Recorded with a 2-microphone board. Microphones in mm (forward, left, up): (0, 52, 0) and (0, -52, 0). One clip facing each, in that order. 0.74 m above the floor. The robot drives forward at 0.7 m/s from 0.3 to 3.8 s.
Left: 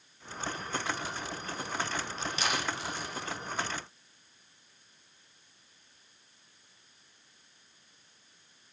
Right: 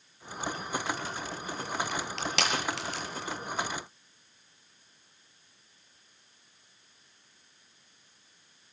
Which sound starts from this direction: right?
Crushing, at 1.9 s.